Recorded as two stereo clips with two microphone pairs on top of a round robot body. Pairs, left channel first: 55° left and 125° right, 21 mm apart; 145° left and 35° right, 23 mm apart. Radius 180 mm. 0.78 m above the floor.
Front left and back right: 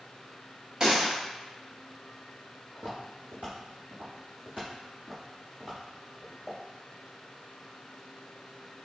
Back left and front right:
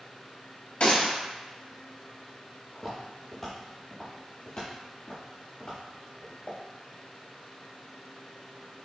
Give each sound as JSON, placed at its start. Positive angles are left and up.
{"t": 0.8, "sound": "a gunshot", "azimuth_deg": 175, "distance_m": 1.6}
{"t": 2.8, "sound": "footsteps", "azimuth_deg": -110, "distance_m": 1.3}